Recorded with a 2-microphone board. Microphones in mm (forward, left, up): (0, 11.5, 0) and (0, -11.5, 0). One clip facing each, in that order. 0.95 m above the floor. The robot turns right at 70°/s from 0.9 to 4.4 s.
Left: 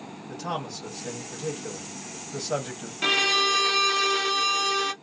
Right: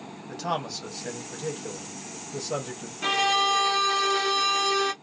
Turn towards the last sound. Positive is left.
turn(degrees=175)